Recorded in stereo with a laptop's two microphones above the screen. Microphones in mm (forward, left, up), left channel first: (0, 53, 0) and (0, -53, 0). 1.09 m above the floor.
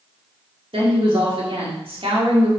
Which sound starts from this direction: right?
A woman speaking, at 0.7 s.